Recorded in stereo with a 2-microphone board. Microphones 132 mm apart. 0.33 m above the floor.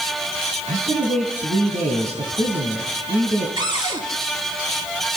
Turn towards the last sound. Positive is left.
turn(degrees=-35)  # may be behind; listen again after turning